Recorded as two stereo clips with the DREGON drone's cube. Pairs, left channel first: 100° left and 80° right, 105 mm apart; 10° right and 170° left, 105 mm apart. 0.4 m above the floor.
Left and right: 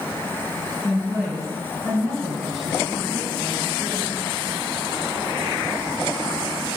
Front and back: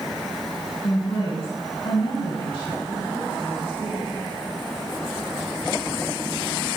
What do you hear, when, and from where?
0.8 s a woman speaking: 10° left, 3 m